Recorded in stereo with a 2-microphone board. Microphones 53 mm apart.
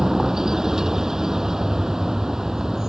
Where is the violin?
No violin in this recording.